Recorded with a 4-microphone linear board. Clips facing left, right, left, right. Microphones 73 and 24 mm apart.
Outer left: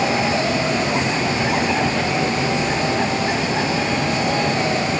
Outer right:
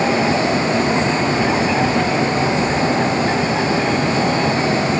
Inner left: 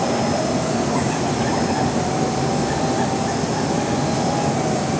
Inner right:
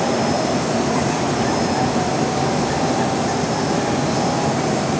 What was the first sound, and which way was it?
Only background noise.